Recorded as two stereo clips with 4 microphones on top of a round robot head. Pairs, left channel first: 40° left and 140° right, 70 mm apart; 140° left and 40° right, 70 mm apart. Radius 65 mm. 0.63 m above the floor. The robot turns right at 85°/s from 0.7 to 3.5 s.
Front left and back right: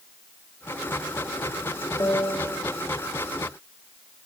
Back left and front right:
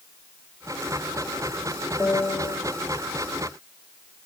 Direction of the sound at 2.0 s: 60° left.